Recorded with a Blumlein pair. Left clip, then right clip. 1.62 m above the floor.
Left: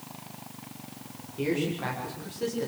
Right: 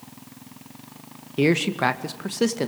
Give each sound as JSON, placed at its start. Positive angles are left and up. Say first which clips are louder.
{"t": 1.4, "sound": "a man speaking", "louder": "right 8 dB", "azimuth_deg": -55, "distance_m": 2.0}